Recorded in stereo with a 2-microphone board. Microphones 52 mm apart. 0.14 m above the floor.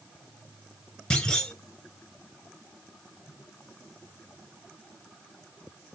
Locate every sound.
1.1 s a clunk: 15° left (ahead or behind), 1.2 m